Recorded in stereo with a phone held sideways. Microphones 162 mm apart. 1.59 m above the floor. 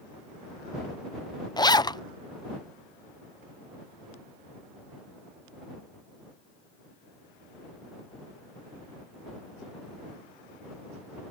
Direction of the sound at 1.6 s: 25° left (ahead or behind).